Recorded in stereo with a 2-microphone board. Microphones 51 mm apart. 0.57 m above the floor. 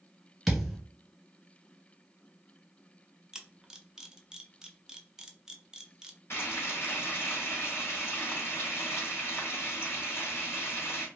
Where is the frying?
55° left (ahead or behind), 2.0 m.